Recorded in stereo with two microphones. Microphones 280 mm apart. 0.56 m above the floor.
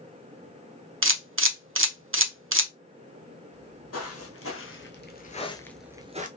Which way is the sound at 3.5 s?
65° left (ahead or behind).